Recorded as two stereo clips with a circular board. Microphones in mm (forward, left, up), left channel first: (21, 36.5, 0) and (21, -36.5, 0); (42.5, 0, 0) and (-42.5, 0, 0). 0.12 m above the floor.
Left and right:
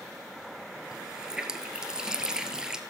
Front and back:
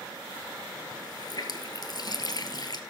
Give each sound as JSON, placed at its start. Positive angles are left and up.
{"t": 0.9, "sound": "a running tap", "azimuth_deg": -10, "distance_m": 1.5}